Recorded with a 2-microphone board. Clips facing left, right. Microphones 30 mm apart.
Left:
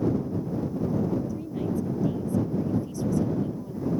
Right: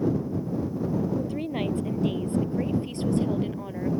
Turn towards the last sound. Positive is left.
turn(degrees=-50)  # may be behind; listen again after turning